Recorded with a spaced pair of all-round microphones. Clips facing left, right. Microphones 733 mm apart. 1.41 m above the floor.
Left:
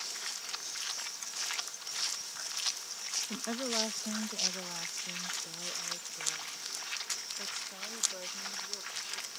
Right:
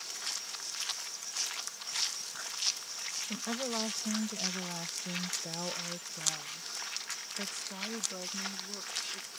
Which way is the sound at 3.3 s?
20° right (ahead or behind).